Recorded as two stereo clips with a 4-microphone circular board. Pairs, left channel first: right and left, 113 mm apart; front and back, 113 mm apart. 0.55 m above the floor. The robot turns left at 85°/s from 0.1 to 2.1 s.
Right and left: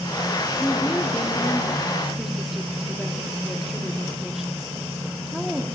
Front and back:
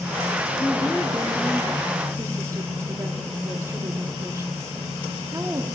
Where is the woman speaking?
60° right, 0.8 m; by 5.7 s 175° left, 0.8 m.